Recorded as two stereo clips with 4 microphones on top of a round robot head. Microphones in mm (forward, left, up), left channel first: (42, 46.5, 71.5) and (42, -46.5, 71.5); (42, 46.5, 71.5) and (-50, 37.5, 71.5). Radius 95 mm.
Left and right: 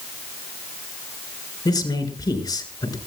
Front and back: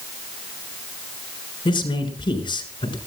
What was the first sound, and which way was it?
A man speaking, 45° left.